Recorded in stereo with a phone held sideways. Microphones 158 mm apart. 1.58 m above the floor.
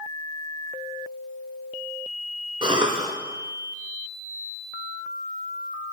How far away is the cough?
About 0.5 m.